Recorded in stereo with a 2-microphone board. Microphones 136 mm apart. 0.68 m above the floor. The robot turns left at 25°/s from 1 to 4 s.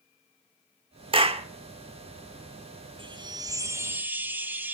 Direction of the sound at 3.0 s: 40° right (ahead or behind).